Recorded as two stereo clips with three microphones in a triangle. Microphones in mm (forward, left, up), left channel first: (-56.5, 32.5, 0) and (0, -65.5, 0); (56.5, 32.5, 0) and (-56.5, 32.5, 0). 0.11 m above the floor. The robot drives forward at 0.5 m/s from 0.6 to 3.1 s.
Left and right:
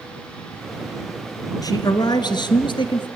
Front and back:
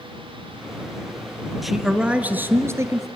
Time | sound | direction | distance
1.6 | a man speaking | 90° left | 1.3 m